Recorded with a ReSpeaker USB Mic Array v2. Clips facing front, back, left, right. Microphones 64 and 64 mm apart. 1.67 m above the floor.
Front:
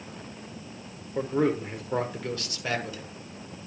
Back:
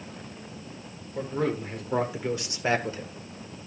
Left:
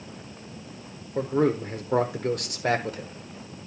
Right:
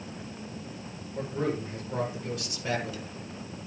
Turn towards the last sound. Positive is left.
turn(degrees=130)